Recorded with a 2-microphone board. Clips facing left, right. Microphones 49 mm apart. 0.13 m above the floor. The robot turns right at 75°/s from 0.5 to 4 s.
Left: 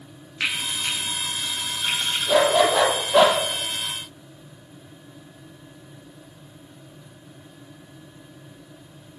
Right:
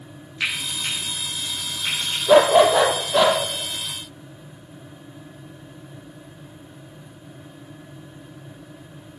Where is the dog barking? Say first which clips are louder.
Right 5 dB; 50° right, 2.0 m; by 3.4 s 30° left, 2.0 m.